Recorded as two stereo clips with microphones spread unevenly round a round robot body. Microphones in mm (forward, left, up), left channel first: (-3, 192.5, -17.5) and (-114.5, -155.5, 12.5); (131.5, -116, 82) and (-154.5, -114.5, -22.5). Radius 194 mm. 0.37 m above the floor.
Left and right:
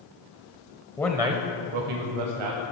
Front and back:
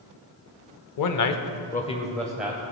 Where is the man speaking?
5° right, 1.3 m; by 2.6 s 110° right, 2.0 m.